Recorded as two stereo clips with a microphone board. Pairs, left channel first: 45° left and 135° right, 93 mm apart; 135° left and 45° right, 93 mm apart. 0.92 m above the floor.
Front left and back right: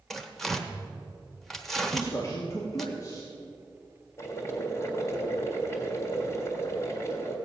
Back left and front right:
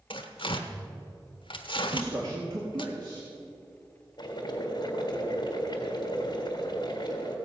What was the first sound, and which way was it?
Tearing paper, 135° left.